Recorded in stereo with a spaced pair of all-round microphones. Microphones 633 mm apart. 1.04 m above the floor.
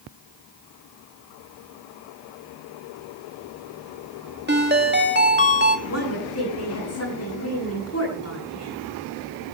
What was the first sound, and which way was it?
A ringtone, 15° right (ahead or behind).